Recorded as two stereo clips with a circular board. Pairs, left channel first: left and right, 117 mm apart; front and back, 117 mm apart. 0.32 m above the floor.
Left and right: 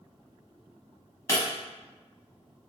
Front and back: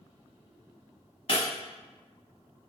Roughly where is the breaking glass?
Ahead left.